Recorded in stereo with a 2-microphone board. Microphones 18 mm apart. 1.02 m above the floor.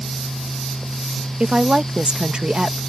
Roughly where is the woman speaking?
Right.